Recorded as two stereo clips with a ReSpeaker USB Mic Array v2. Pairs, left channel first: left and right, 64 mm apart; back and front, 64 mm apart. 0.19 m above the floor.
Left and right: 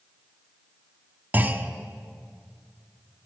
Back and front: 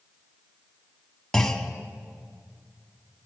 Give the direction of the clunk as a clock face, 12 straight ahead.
4 o'clock.